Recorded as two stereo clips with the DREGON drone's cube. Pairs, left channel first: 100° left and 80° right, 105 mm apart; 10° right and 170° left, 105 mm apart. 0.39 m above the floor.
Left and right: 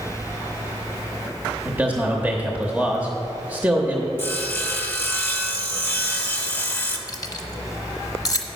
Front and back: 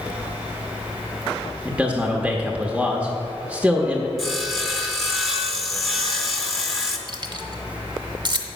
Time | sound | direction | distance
1.6 | a man speaking | 125° right | 0.8 m
4.2 | sawing | 70° left | 0.9 m
7.1 | keys jangling | 140° left | 0.8 m